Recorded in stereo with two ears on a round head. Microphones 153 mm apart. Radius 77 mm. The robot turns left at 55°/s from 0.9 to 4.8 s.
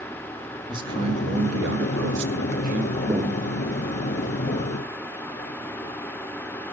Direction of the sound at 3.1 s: 15° right (ahead or behind).